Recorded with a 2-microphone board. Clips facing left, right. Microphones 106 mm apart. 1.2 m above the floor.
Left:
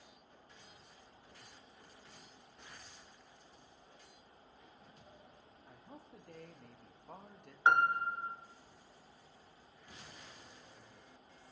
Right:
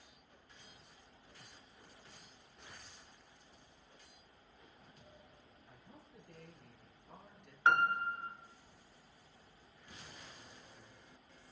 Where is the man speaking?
75° left (ahead or behind), 1.9 m; by 7.5 s 50° left (ahead or behind), 1.1 m.